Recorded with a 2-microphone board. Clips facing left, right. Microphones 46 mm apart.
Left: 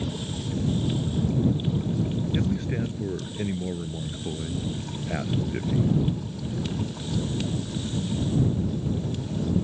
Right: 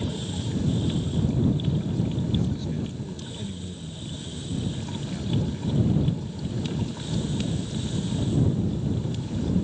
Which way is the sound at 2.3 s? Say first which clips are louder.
Left 1 dB; 60° left (ahead or behind).